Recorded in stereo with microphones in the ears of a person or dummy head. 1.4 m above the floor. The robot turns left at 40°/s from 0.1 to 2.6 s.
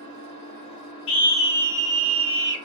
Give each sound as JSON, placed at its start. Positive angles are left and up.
{"t": 0.0, "sound": "an engine running", "azimuth_deg": -105, "distance_m": 1.2}
{"t": 1.1, "sound": "a scream", "azimuth_deg": 30, "distance_m": 0.6}